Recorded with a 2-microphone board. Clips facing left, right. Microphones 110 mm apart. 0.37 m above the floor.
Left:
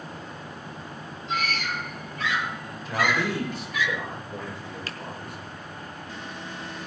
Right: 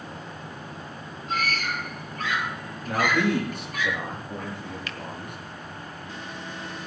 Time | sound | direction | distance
1.3 | a scream | 50° right (ahead or behind) | 6.5 m
2.9 | a man speaking | 65° right (ahead or behind) | 7 m
4.9 | a finger snap | 35° left (ahead or behind) | 1.3 m